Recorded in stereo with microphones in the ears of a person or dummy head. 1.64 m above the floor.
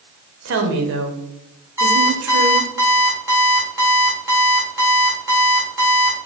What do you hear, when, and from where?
0.5 s a woman speaking: 70° right (ahead or behind), 0.9 m
1.8 s an alarm clock: 15° right (ahead or behind), 1.8 m